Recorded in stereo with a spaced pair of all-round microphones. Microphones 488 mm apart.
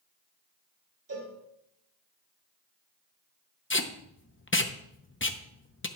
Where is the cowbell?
40° right (ahead or behind), 3 m.